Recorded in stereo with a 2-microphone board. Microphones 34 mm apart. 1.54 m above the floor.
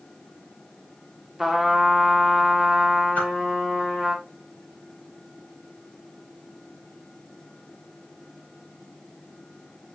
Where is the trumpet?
5° right (ahead or behind), 1.7 m.